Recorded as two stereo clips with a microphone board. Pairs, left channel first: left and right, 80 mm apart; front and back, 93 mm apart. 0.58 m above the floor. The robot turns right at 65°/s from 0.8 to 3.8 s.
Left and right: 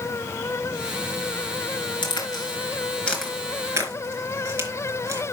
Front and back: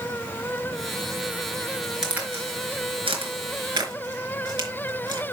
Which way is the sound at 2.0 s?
95° left.